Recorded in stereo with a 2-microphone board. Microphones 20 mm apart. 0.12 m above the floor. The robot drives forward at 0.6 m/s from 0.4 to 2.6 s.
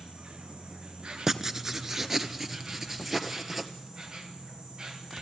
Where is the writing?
20° right (ahead or behind), 1.0 m; by 3.7 s 15° right (ahead or behind), 1.6 m.